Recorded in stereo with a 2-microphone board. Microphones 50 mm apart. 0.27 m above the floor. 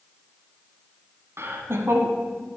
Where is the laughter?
60° right (ahead or behind), 1.7 m.